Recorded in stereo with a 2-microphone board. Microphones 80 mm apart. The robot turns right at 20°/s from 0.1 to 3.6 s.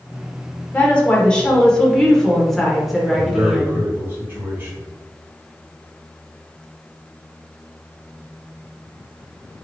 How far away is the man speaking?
About 1.8 m.